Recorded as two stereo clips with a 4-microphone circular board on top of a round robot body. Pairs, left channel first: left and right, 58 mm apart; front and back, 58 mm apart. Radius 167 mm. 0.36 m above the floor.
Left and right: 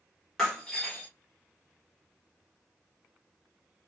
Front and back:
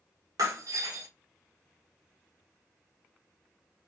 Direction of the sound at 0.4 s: Straight behind.